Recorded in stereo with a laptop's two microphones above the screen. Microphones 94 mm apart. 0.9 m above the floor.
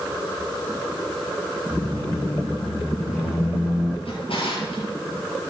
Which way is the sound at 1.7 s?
5° right (ahead or behind).